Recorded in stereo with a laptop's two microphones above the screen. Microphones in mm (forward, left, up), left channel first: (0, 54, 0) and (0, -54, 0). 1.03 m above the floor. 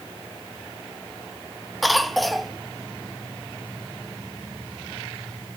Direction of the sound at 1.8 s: Centre (ahead or behind).